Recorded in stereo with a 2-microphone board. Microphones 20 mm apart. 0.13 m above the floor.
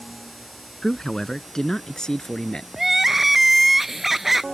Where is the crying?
10° right (ahead or behind).